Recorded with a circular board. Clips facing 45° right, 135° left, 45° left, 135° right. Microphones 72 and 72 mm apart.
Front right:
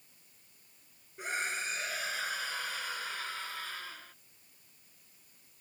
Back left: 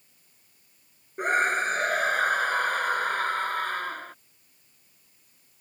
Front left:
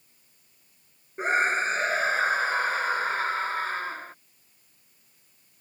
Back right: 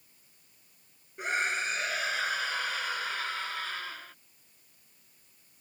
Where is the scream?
100° left.